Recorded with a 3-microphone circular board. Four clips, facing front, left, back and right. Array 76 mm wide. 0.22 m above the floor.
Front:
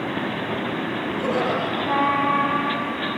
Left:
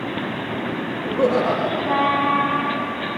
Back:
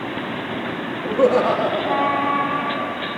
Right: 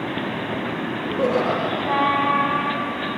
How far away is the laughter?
About 8.5 m.